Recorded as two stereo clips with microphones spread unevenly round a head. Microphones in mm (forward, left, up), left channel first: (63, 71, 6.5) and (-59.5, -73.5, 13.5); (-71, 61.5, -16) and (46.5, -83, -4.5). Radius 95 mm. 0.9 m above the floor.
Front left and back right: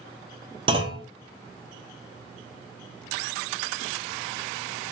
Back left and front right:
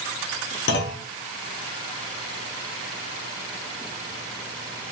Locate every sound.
0.7 s a clunk: 165° left, 0.5 m